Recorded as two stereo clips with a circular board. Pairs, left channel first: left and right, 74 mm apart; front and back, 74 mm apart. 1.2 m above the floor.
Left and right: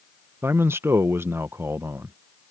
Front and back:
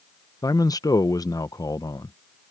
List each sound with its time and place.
0.4 s a man speaking: 35° right